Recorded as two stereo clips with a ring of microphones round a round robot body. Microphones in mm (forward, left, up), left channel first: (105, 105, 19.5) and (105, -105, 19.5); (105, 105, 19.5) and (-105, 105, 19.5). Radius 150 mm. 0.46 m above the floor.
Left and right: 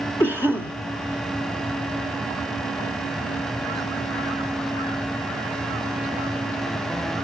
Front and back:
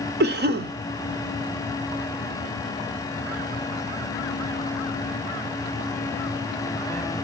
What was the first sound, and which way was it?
A cough, 170° left.